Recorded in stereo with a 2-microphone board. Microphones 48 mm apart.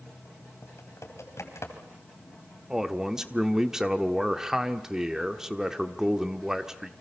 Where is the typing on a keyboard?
70° left (ahead or behind), 3.5 m.